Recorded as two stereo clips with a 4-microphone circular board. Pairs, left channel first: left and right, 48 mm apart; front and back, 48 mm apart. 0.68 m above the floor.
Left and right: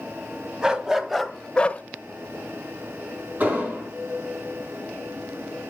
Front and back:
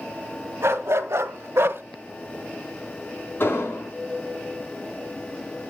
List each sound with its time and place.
0.6 s a dog barking: 160° right, 1.4 m; by 1.8 s 140° left, 0.7 m
3.4 s an explosion: 35° right, 5.5 m